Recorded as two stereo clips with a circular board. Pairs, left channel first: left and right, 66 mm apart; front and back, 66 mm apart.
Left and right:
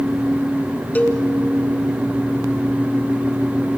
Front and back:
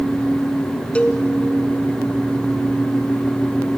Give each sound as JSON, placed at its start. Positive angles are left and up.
{"t": 0.9, "sound": "a cowbell", "azimuth_deg": 55, "distance_m": 1.4}